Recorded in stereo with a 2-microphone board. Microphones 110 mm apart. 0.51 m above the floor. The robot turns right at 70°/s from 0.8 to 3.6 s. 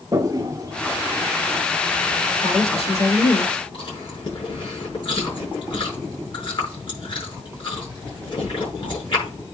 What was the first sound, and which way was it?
A toilet flushing, 30° right (ahead or behind).